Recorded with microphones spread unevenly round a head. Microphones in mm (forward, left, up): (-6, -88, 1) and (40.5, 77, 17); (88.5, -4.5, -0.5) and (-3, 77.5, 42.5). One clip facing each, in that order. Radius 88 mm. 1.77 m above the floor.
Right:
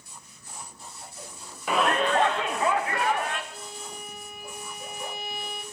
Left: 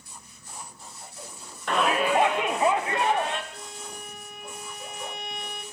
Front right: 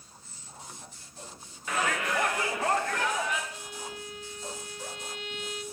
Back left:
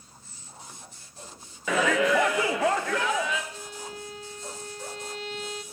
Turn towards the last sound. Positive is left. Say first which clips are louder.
# even, back left 2 dB
turn(degrees=165)